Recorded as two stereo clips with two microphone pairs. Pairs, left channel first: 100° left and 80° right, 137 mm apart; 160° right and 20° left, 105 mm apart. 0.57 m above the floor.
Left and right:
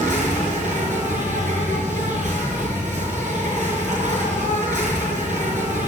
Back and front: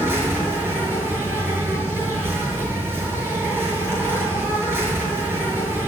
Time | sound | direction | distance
0.0 | an insect | 50° right | 6.5 m